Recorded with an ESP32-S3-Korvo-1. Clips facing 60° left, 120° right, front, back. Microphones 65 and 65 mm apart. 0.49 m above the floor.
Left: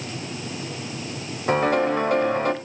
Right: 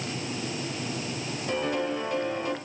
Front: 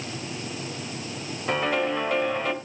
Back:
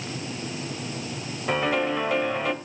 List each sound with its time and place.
1.5 s a piano: 90° left, 1.4 m